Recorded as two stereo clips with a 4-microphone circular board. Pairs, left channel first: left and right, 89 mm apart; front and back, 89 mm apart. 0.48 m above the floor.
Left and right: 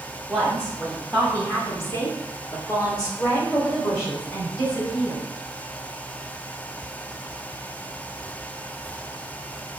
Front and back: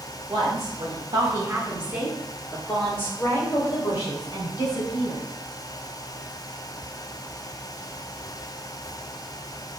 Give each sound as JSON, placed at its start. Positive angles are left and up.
{"t": 0.3, "sound": "a woman speaking", "azimuth_deg": 175, "distance_m": 1.6}